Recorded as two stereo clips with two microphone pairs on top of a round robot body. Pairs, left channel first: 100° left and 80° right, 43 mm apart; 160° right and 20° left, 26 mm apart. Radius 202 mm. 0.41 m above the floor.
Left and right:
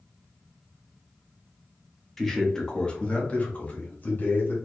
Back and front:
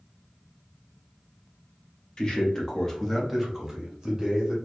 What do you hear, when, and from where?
2.2 s a man speaking: 170° left, 1.3 m; by 4.5 s 85° left, 1.6 m